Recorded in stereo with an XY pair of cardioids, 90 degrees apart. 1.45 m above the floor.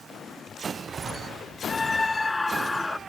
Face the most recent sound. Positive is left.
turn(degrees=15)